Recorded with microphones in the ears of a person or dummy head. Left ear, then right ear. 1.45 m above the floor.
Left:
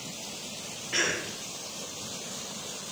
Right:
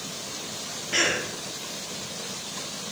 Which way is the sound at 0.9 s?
5° left (ahead or behind).